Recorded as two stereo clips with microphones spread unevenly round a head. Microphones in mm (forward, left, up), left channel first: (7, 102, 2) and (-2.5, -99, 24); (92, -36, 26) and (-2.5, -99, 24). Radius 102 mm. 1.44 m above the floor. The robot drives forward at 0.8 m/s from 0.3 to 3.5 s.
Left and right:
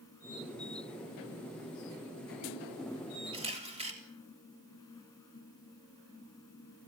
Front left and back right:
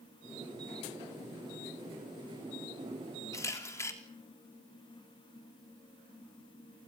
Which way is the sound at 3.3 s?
30° right.